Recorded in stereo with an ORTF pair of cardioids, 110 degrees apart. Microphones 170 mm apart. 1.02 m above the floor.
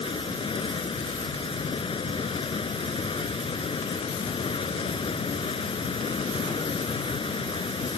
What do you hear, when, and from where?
0.0 s running water: 30° left